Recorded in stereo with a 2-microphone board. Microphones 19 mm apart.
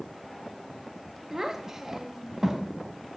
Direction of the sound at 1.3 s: 25° right (ahead or behind).